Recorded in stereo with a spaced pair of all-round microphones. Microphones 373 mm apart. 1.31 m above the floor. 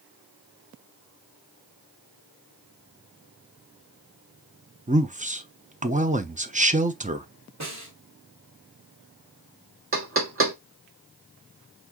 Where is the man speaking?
20° right (ahead or behind), 0.8 m.